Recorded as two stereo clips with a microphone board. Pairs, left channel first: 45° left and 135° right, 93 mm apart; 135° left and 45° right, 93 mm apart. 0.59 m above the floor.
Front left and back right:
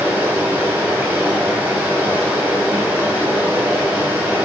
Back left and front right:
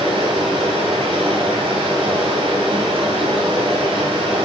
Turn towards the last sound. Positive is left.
turn(degrees=-60)